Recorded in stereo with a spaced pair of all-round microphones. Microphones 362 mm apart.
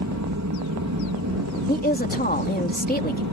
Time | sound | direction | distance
0.0 | an aircraft | 50° right (ahead or behind) | ?
1.7 | a woman speaking | 25° left (ahead or behind) | ?